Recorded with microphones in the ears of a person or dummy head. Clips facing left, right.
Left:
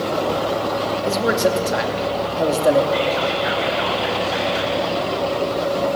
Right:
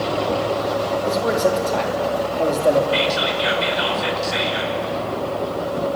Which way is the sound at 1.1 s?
5° left (ahead or behind).